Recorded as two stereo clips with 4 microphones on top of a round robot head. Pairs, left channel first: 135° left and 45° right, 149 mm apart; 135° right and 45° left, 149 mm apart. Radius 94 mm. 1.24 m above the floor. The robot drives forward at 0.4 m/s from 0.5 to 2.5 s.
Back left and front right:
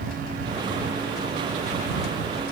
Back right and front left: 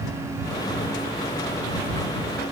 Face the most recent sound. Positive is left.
No sound to turn to.